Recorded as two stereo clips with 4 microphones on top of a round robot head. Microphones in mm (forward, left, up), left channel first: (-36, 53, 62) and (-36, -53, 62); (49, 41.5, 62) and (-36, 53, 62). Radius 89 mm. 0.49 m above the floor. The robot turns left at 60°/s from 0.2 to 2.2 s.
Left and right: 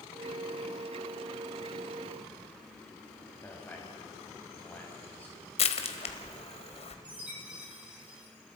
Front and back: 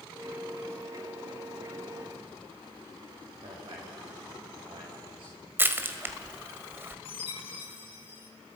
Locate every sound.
3.4 s a man speaking: 160° left, 4 m
5.6 s crushing: 105° left, 1.7 m
7.0 s a chime: 10° right, 3.5 m